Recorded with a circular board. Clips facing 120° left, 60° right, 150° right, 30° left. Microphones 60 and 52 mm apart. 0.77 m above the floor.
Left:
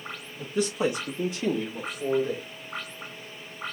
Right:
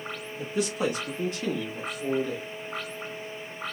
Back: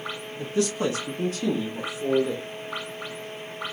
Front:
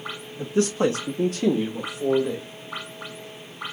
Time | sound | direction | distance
0.4 | a man speaking | 25° left | 0.7 m